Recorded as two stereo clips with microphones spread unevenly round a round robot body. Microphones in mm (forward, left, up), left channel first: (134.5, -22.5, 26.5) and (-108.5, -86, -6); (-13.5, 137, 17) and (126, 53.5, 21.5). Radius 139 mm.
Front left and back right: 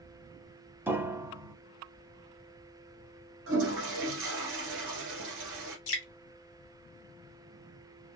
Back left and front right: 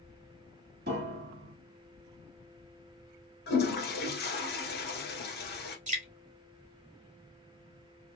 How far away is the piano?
About 0.7 m.